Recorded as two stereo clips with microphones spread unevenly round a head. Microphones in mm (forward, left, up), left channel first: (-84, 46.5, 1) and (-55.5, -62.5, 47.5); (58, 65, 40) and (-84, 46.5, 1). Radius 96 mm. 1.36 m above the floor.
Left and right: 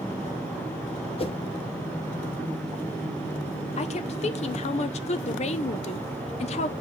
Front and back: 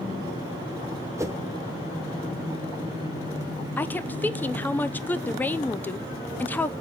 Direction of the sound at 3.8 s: 90° left.